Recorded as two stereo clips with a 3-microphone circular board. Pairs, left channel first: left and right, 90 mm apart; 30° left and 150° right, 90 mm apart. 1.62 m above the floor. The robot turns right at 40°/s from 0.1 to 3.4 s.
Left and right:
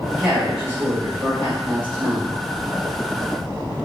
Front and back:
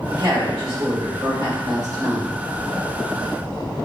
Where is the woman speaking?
175° right, 1.3 m; by 2.4 s 85° right, 1.3 m.